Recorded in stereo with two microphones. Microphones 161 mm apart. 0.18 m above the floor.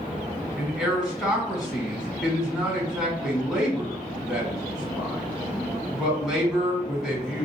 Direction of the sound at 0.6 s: 5° right (ahead or behind).